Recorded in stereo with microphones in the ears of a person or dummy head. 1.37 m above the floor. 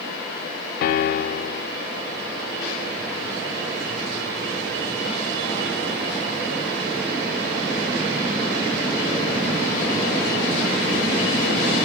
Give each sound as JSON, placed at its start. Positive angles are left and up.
{"t": 0.8, "sound": "a piano", "side_deg": 50, "distance_m": 0.6}